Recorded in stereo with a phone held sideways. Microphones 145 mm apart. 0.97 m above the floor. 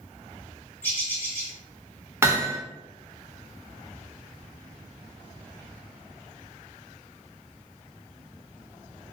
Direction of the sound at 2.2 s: 15° right (ahead or behind).